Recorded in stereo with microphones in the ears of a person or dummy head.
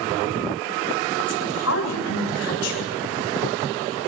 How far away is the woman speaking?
About 8 m.